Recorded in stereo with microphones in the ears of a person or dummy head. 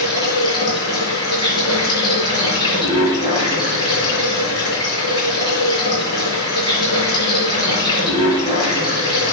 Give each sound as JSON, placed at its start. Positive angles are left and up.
{"t": 0.0, "sound": "running water", "side_deg": -25, "distance_m": 8.0}